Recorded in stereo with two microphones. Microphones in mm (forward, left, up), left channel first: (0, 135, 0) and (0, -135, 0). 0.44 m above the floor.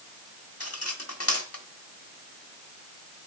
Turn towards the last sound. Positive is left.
turn(degrees=55)  # may be behind; listen again after turning